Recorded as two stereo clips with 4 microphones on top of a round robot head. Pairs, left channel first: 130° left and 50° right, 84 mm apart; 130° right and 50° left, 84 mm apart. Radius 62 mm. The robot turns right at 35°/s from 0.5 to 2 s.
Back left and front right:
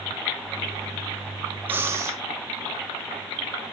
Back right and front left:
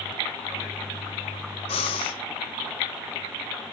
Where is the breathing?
115° right, 1.5 m; by 2.2 s 105° right, 1.5 m.